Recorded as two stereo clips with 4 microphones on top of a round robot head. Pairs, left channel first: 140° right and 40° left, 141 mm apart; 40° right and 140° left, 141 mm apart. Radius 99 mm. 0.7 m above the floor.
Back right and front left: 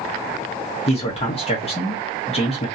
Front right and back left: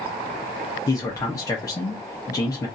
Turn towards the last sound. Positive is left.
turn(degrees=-100)